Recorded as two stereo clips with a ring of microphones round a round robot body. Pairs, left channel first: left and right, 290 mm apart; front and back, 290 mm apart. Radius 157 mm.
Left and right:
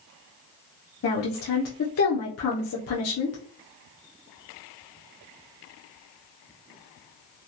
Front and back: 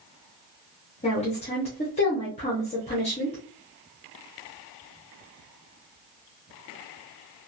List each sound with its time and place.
1.0 s a woman speaking: 65° left, 0.6 m